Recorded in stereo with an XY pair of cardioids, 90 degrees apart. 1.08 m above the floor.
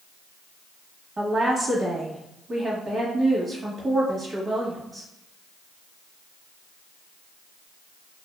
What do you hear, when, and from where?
1.2 s a woman speaking: 50° right, 1.1 m